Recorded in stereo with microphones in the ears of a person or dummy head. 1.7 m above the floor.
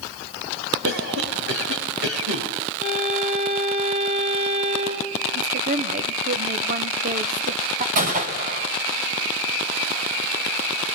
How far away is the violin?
About 5.5 m.